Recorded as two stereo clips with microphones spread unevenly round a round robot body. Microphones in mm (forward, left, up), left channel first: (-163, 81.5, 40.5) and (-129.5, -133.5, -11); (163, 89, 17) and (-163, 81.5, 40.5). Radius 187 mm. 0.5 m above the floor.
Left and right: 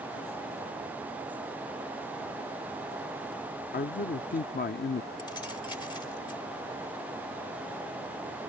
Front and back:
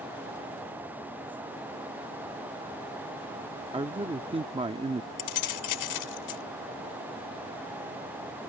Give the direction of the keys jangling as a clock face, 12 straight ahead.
11 o'clock.